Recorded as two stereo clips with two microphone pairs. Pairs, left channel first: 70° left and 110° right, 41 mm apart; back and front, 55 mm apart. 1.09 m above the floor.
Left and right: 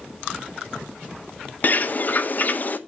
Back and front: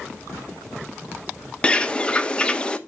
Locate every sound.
1.6 s a bird: 110° left, 0.7 m